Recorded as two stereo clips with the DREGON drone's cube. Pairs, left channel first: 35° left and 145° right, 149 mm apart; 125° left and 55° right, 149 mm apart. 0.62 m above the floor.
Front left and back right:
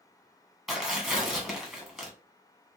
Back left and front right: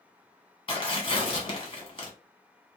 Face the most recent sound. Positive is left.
turn(degrees=125)